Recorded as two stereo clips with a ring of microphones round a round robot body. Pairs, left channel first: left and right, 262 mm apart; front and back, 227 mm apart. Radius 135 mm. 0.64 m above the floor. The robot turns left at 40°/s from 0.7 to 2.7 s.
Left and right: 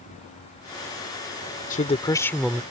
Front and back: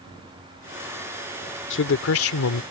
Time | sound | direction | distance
1.7 | a man speaking | 30° left | ?